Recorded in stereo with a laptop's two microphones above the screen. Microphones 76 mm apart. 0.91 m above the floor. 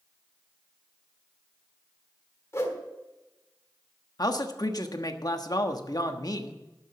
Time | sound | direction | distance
2.5 | a whoosh | 40° left (ahead or behind) | 1.5 m
4.2 | a man speaking | 55° left (ahead or behind) | 1.3 m